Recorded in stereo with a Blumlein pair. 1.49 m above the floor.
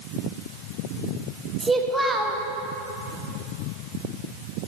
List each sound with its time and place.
1.6 s a child speaking: 5° right, 1.4 m